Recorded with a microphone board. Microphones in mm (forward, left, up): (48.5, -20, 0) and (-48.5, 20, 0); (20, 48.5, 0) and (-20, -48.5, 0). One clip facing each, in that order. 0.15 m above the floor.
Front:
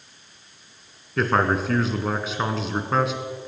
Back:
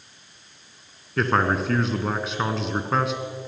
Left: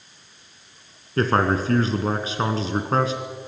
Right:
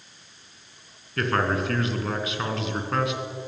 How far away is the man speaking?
About 1.8 m.